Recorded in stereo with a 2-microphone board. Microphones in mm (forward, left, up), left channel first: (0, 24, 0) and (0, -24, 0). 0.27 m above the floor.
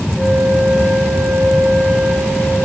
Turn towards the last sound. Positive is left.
turn(degrees=-5)  # may be behind; listen again after turning